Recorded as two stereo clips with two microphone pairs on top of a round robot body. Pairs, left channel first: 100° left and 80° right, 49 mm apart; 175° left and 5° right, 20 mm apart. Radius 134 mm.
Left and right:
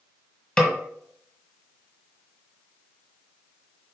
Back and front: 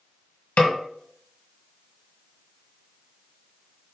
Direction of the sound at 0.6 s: Straight behind.